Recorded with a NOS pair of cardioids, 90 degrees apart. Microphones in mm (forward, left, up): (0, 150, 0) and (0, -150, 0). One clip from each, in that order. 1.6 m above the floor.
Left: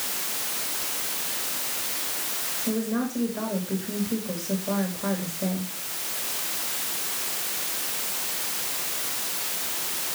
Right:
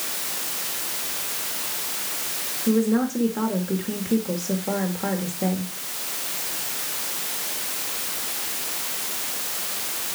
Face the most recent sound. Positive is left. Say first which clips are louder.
# right 8 dB
turn(degrees=-40)